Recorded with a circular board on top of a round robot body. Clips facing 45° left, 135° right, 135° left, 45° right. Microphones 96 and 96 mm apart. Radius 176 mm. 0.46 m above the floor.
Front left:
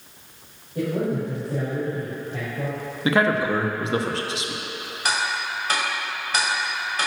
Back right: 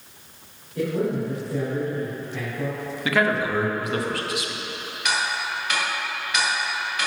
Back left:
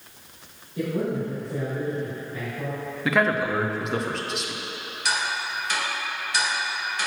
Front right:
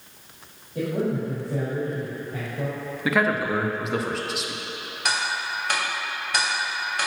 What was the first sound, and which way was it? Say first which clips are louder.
A man speaking: even, front right 1 dB; 15° right.